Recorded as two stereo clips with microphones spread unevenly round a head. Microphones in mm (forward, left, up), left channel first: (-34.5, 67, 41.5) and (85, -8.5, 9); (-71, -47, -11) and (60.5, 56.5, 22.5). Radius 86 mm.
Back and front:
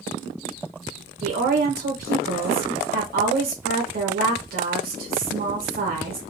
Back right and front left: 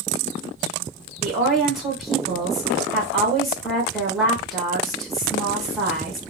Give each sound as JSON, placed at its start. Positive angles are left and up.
{"t": 1.2, "sound": "a woman speaking", "azimuth_deg": -55, "distance_m": 2.0}